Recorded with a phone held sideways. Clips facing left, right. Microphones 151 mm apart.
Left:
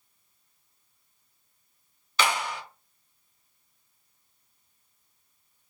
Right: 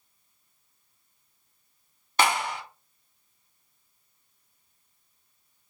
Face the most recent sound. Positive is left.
turn(degrees=-50)  # may be behind; listen again after turning